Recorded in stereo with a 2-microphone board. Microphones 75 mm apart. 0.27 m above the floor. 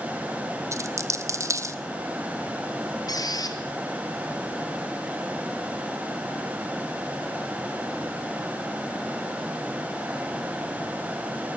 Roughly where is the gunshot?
No gunshot in this recording.